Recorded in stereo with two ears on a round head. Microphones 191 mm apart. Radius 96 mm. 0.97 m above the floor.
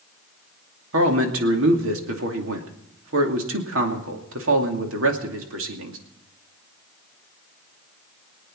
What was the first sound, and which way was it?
A man speaking, 70° right (ahead or behind).